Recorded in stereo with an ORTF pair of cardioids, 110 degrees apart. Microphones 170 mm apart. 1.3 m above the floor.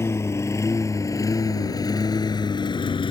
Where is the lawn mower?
15° left; by 3.1 s 30° left.